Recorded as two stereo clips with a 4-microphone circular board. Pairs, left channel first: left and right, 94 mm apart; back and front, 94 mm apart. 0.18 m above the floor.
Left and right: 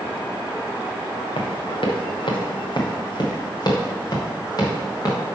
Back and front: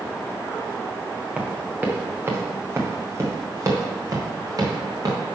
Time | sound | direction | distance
1.4 | running footsteps | 75° left | 2.5 m